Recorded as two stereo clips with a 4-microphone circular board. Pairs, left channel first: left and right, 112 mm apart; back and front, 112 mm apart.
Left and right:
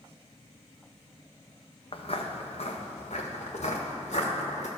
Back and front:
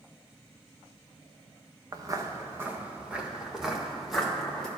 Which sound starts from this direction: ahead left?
Footsteps, at 1.9 s.